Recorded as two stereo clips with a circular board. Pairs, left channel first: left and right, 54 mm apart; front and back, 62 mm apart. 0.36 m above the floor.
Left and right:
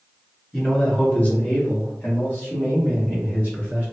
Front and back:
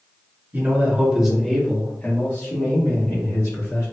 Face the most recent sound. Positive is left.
turn(degrees=35)